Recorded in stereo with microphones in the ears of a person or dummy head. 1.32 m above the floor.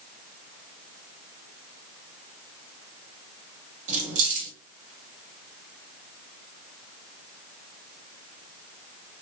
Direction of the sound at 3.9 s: 45° right (ahead or behind).